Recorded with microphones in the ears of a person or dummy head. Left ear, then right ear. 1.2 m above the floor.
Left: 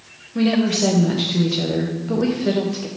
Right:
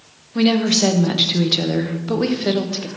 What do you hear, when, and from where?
0.3 s a woman speaking: 30° right (ahead or behind), 0.7 m